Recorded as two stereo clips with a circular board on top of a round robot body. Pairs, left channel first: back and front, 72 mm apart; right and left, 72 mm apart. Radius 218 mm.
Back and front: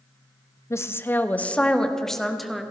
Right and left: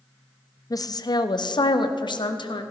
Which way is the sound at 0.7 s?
130° right.